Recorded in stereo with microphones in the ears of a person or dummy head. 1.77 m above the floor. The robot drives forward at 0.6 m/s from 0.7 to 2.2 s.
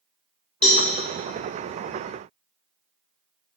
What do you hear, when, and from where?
0.6 s a cowbell: 5° left (ahead or behind), 1.1 m